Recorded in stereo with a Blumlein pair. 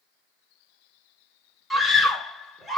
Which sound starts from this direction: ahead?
A scream, at 1.7 s.